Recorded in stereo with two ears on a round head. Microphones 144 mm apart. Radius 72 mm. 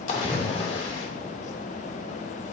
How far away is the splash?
About 2.5 m.